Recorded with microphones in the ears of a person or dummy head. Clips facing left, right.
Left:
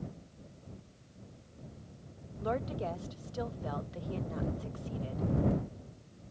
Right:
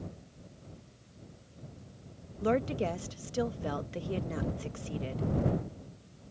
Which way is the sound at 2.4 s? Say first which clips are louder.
Right 6 dB; 40° right (ahead or behind).